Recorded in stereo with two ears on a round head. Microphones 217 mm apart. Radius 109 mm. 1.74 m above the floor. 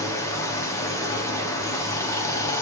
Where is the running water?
15° left (ahead or behind), 0.7 m.